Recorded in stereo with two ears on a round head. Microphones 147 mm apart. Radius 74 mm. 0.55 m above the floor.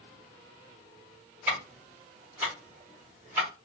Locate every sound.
1.5 s ticking: 10° right (ahead or behind), 1.5 m